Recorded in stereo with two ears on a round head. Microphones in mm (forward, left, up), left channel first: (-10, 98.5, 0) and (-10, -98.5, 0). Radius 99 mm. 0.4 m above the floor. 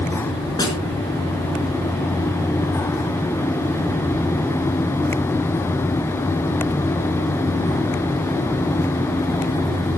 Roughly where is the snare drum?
Centre.